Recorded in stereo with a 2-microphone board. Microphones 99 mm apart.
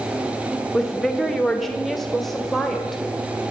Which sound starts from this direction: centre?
A woman speaking, at 0.7 s.